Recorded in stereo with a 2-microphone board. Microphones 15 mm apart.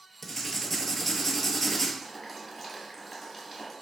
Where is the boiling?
5° left (ahead or behind), 1.2 m.